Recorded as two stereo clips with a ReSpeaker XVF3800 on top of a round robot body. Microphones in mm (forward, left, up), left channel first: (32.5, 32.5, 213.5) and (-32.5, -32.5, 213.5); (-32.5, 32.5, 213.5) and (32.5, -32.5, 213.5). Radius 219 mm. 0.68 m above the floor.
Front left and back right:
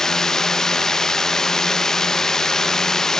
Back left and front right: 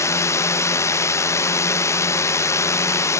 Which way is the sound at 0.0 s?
125° left.